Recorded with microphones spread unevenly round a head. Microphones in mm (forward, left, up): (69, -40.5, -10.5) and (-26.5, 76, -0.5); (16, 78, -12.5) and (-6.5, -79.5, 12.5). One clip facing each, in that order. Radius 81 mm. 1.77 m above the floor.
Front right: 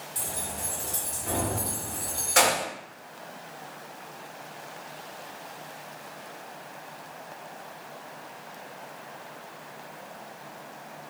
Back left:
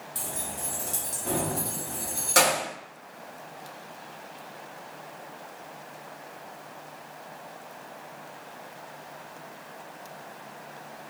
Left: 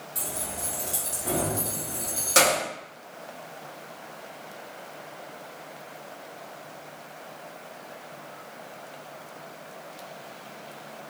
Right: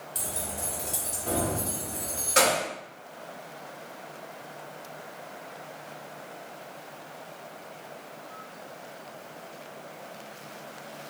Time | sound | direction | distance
0.1 | keys jangling | 160° right | 1.1 m